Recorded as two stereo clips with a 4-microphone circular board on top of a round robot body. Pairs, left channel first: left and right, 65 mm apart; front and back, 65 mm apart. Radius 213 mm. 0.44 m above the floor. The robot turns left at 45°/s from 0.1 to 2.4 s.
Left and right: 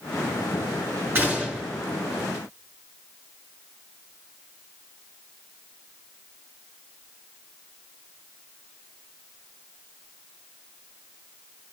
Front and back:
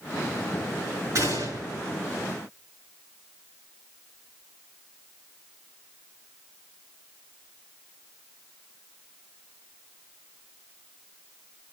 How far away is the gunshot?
About 5 m.